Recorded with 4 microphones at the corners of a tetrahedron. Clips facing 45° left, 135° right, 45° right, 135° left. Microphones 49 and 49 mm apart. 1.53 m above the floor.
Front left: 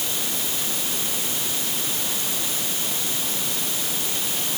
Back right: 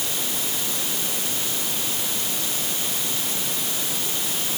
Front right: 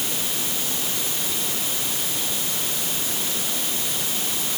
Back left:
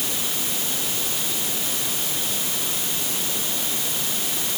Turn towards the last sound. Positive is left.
No sound to turn to.